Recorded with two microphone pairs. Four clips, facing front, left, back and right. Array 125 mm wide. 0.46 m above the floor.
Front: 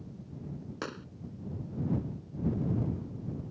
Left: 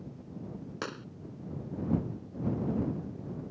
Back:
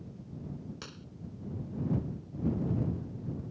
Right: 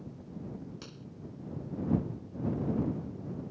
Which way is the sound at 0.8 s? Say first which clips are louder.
Left 9 dB, front 9 dB; 60° left.